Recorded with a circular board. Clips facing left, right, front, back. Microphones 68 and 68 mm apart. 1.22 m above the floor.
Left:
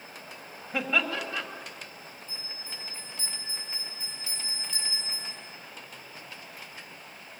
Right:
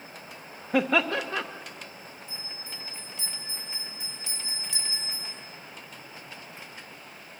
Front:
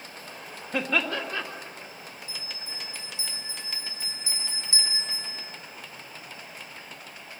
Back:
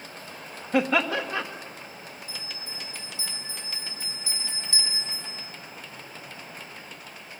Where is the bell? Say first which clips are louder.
Right 1 dB, back 1 dB; 70° right, 8.5 m.